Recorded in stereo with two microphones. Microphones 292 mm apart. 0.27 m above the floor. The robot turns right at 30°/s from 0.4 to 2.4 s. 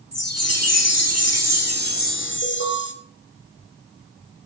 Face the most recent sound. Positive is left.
turn(degrees=60)  # may be behind; listen again after turning